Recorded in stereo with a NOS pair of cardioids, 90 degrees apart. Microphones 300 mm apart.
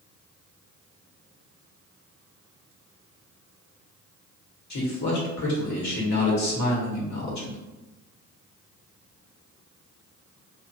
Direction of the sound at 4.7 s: 65° left.